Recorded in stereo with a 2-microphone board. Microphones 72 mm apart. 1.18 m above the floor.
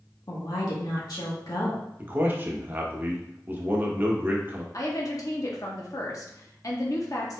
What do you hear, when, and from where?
0.3 s a woman speaking: 65° left (ahead or behind), 1.4 m
2.0 s a man speaking: 30° right (ahead or behind), 1.0 m
4.7 s a woman speaking: 50° left (ahead or behind), 0.9 m